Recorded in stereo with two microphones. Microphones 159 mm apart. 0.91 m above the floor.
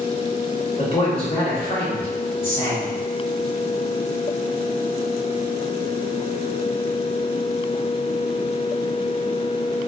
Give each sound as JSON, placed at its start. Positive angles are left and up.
{"t": 0.8, "sound": "a man speaking", "side_deg": 35, "distance_m": 1.6}